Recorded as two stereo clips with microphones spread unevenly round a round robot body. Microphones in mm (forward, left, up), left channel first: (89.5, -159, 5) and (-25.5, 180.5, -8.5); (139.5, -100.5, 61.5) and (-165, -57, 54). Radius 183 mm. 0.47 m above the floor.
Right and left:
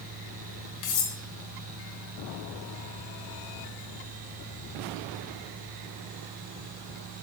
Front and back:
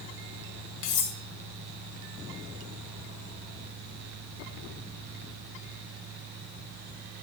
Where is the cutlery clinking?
30° right, 2.5 m.